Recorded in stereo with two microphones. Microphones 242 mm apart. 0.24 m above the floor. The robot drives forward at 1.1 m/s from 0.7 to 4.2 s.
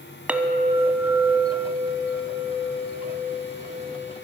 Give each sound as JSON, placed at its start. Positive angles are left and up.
{"t": 0.3, "sound": "a clink", "side_deg": -5, "distance_m": 0.9}